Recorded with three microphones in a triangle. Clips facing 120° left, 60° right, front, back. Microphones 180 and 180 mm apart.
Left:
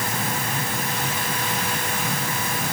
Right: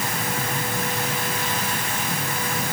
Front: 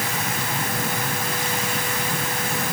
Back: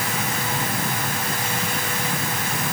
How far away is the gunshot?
No gunshot in this recording.